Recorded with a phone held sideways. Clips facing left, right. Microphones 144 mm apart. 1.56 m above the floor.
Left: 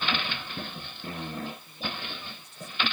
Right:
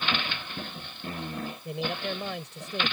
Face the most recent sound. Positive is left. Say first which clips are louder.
# right 7 dB
turn(degrees=-85)